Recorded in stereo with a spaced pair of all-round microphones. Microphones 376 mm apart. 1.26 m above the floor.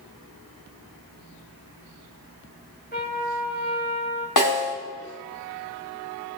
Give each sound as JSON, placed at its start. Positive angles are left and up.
{"t": 2.9, "sound": "a trumpet", "side_deg": 25, "distance_m": 2.0}
{"t": 4.4, "sound": "a snare drum", "side_deg": 65, "distance_m": 2.5}